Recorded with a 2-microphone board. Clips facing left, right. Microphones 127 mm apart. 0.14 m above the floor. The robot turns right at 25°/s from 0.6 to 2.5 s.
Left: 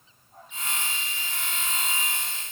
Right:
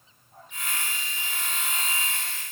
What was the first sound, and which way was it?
Only background noise.